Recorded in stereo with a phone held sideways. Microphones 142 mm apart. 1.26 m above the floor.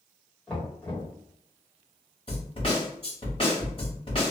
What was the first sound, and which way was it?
Knocking, 10° left (ahead or behind).